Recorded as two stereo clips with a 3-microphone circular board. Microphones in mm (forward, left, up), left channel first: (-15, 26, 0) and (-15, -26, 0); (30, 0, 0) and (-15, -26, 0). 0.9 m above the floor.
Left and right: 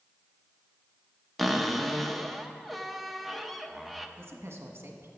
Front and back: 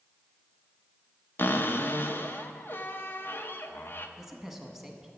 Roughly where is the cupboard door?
Ahead.